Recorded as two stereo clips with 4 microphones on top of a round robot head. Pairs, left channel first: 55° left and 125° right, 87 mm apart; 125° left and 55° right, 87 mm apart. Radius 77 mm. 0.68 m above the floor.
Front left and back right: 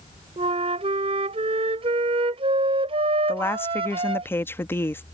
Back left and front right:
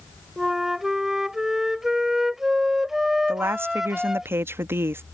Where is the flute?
140° right.